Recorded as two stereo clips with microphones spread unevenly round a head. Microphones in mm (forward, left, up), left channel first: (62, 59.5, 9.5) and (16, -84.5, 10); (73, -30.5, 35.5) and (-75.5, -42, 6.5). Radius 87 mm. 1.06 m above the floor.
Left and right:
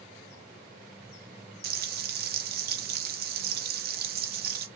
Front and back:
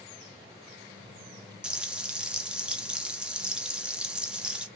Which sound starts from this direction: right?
Frying, at 1.6 s.